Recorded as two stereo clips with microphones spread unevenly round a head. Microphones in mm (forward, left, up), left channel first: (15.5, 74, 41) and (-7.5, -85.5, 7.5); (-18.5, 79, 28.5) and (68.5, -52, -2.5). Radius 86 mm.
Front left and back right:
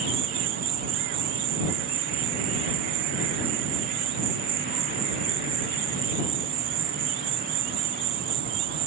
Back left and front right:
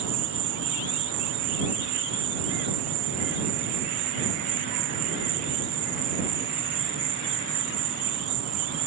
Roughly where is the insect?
Ahead right.